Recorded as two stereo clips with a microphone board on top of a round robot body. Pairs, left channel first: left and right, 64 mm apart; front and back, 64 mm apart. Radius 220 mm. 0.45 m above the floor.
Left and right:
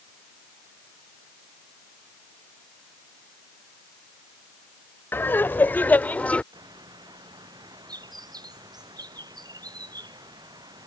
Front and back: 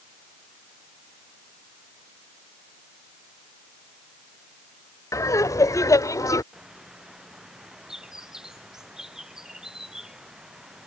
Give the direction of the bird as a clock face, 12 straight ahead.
3 o'clock.